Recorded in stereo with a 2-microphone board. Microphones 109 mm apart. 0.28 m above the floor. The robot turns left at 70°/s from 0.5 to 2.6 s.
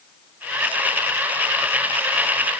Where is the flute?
I don't hear a flute.